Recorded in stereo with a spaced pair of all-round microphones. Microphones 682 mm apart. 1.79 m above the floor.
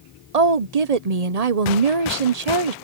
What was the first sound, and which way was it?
A woman speaking, 65° right (ahead or behind).